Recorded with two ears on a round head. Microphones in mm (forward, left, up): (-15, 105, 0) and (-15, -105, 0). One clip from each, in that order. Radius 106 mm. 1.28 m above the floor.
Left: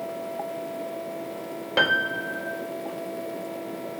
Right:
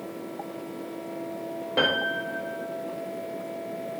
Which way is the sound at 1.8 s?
40° left (ahead or behind).